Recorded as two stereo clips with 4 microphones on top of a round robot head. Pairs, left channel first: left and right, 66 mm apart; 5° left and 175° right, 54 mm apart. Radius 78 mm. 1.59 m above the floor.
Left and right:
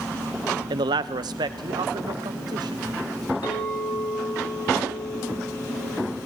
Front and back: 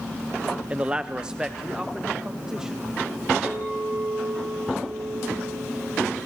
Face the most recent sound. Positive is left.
turn(degrees=115)